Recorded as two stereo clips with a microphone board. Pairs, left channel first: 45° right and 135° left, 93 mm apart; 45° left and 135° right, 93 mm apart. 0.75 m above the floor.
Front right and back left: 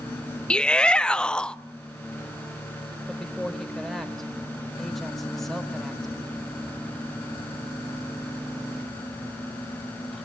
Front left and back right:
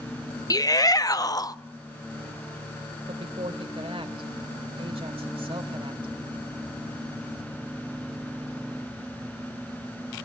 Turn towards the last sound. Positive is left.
turn(degrees=-130)